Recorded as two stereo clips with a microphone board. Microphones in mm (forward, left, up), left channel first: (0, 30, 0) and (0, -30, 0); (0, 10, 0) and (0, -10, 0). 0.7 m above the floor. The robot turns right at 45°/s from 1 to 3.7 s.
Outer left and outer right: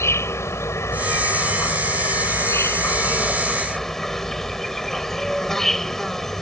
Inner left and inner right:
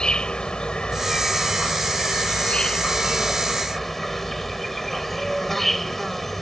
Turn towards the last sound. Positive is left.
turn(degrees=175)